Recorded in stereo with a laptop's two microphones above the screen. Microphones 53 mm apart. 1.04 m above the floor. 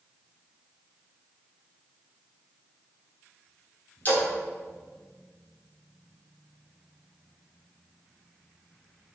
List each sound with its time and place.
4.0 s a splash: 35° left (ahead or behind), 3.5 m